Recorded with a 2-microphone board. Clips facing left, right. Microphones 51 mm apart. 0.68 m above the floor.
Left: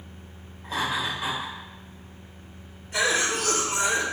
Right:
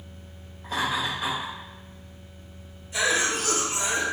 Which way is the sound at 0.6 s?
Centre (ahead or behind).